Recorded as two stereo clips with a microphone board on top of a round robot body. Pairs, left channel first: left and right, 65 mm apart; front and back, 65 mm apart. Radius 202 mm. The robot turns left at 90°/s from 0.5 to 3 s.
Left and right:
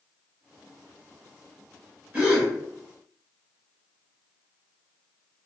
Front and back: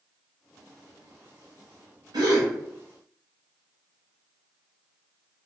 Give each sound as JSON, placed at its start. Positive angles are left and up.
{"t": 2.1, "sound": "a gasp", "azimuth_deg": -160, "distance_m": 0.7}